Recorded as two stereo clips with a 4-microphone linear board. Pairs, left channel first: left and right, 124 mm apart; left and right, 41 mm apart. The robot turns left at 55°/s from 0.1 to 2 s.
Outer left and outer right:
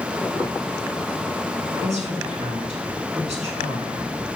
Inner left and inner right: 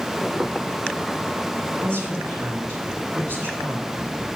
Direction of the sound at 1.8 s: 75° right (ahead or behind).